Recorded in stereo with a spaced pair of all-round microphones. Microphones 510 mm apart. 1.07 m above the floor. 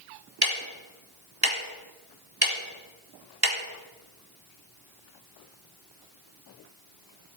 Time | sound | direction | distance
0.4 | ticking | 45° right (ahead or behind) | 2 m